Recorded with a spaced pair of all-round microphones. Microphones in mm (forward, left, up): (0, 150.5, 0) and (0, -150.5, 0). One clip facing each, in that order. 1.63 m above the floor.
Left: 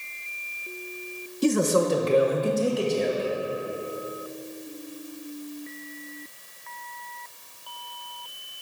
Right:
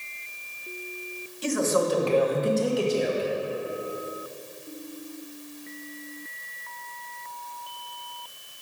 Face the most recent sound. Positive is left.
turn(degrees=-10)  # may be behind; listen again after turning